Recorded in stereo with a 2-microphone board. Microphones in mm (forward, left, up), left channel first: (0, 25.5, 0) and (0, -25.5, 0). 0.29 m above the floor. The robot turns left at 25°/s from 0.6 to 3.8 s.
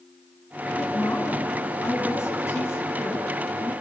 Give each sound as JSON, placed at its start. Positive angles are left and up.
{"t": 0.8, "sound": "a woman speaking", "azimuth_deg": 115, "distance_m": 2.5}